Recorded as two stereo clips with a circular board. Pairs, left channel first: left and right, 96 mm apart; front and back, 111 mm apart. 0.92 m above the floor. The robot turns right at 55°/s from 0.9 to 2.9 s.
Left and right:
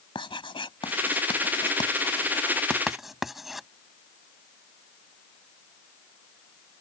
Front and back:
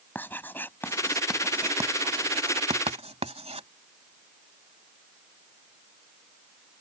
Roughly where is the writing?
Left.